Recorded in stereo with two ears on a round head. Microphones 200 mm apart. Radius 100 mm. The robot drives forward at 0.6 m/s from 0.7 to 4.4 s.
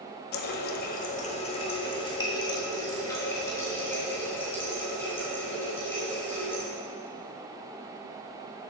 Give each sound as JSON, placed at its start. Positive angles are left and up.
{"t": 0.3, "sound": "a running tap", "side_deg": 45, "distance_m": 0.7}